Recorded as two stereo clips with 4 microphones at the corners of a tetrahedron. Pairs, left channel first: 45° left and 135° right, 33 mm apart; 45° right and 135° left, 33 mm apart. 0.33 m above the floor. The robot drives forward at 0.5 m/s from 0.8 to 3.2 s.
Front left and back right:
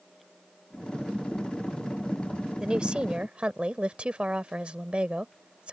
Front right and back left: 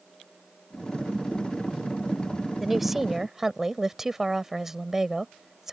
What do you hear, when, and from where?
2.6 s a woman speaking: 145° right; by 5.7 s 155° right